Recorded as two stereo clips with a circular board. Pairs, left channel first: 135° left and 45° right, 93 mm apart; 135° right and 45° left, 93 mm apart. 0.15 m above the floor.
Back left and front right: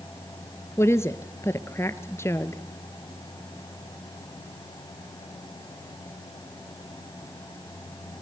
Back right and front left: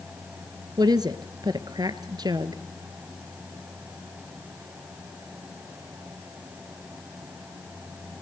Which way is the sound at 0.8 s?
80° left.